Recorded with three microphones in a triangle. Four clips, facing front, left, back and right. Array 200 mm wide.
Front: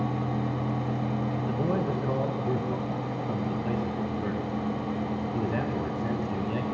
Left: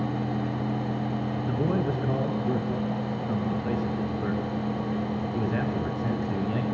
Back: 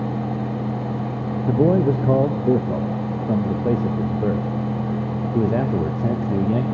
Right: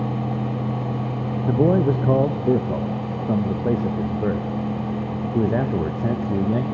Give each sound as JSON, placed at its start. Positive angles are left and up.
{"t": 1.4, "sound": "a man speaking", "azimuth_deg": -150, "distance_m": 1.0}